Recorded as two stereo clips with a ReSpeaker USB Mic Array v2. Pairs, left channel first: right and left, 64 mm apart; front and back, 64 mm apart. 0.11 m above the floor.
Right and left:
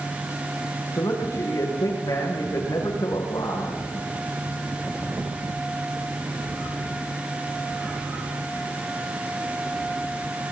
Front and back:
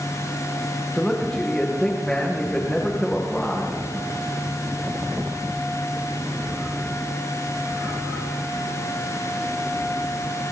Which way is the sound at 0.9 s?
75° right.